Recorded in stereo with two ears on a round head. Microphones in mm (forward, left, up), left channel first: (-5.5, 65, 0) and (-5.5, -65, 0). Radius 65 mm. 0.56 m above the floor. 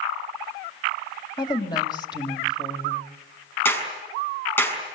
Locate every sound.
1.4 s a woman speaking: 30° left (ahead or behind), 2.5 m
3.6 s a clap: 15° left (ahead or behind), 5.5 m